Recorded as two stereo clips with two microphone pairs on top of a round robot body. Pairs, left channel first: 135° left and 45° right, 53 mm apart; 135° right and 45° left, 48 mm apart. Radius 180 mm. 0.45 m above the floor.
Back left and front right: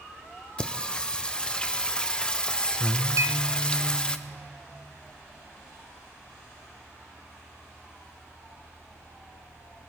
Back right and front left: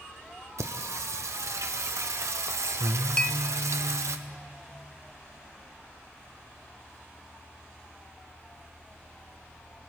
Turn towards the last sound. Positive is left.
turn(degrees=-65)